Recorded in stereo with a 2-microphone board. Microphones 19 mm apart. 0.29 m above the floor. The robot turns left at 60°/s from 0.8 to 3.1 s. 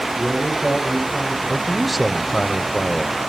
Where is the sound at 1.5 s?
10° right (ahead or behind), 1.0 m; by 3.3 s 25° left (ahead or behind), 1.0 m.